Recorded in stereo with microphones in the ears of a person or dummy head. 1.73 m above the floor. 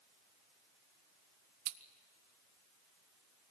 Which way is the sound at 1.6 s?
55° right (ahead or behind).